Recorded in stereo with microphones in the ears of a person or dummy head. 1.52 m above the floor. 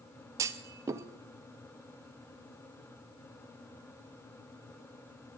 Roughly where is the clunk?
Centre.